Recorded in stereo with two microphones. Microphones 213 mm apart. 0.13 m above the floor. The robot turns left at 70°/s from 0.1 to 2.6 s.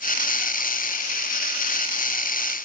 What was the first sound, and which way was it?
Only background noise.